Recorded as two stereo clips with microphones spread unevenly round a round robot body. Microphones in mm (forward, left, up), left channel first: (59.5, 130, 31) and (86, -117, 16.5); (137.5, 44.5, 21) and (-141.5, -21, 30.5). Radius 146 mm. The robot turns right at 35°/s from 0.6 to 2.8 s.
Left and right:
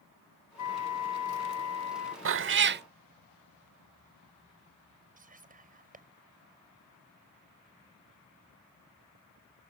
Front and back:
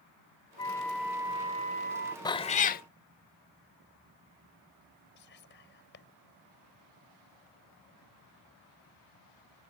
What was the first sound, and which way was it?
A flute, 90° left.